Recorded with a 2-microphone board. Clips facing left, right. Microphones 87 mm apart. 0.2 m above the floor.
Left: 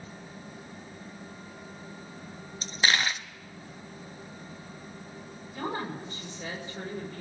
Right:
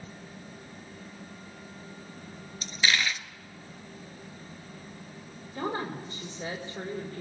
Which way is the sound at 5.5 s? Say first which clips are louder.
Right 1 dB; 30° right (ahead or behind).